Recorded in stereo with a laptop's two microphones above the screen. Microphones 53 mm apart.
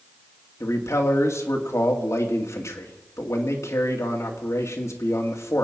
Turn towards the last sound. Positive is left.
turn(degrees=70)  # may be behind; listen again after turning